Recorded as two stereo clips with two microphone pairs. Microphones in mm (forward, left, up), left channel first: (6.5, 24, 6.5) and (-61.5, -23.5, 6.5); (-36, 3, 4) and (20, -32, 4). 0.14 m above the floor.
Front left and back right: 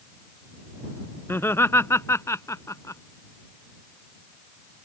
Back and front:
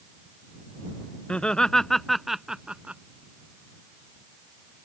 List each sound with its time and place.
1.3 s laughter: 85° left; by 3.0 s 25° left